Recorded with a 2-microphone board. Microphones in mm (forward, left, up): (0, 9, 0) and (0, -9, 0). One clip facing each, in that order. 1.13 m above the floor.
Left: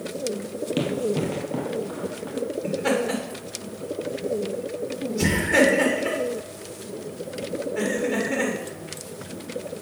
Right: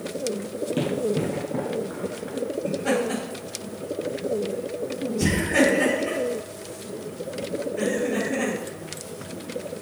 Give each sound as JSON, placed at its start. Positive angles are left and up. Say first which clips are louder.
{"t": 0.8, "sound": "running footsteps", "louder": "even", "side_deg": 30, "distance_m": 1.8}
{"t": 2.6, "sound": "laughter", "louder": "left 1 dB", "side_deg": 80, "distance_m": 3.0}